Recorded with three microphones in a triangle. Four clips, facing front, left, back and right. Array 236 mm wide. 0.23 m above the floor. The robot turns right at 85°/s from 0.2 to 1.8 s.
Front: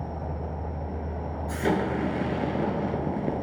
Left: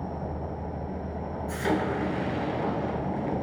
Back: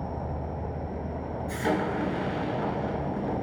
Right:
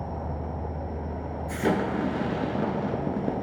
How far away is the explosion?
About 0.6 m.